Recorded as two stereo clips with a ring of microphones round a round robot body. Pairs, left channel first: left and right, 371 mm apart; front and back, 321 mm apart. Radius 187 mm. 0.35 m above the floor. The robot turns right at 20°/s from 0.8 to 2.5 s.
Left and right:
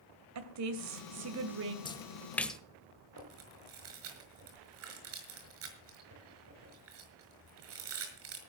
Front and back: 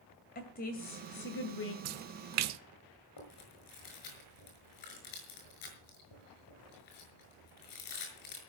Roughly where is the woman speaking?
Ahead right.